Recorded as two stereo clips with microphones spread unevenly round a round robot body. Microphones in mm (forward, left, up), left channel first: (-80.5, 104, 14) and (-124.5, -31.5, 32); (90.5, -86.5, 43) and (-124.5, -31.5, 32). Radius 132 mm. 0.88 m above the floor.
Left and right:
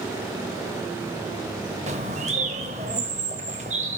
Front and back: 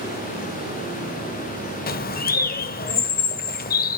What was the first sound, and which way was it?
A bird, 55° right.